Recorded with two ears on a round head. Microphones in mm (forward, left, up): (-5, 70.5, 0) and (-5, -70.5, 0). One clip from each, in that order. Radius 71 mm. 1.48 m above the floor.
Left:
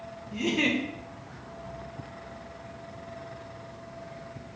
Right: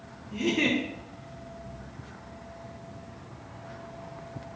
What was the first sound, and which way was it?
A giggle, 5° left (ahead or behind).